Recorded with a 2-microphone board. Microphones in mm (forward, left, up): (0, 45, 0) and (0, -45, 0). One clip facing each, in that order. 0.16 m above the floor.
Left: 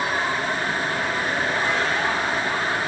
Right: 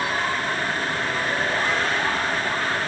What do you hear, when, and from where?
Only background noise.